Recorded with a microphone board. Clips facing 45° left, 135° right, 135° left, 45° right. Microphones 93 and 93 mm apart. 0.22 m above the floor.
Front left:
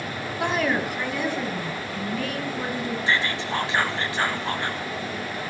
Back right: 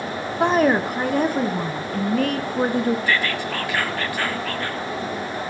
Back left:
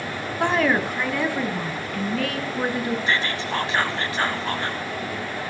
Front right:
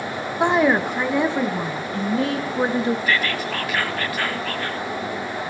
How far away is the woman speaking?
About 1.4 m.